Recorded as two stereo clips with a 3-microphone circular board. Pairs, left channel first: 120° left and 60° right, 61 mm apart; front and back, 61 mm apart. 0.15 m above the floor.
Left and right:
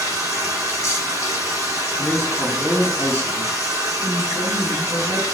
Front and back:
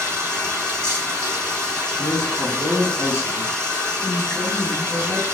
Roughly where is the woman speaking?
Behind left.